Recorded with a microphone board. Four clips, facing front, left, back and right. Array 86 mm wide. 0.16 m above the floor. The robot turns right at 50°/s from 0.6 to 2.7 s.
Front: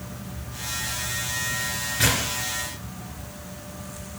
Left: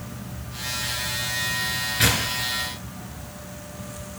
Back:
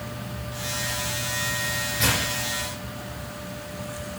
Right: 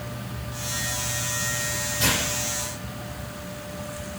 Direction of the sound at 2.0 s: 70° left.